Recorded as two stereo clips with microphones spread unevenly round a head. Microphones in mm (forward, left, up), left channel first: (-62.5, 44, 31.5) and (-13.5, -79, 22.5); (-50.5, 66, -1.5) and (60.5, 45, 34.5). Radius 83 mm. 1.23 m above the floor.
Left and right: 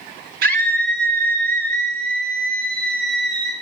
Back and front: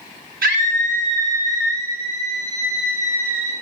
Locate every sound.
0.4 s a scream: 50° right, 3 m; by 3.5 s 65° right, 4.5 m